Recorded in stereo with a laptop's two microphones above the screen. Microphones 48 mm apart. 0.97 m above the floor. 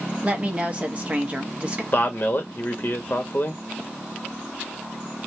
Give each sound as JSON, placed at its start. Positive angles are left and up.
{"t": 0.2, "sound": "a woman speaking", "side_deg": -25, "distance_m": 1.2}
{"t": 1.9, "sound": "a man speaking", "side_deg": 45, "distance_m": 1.2}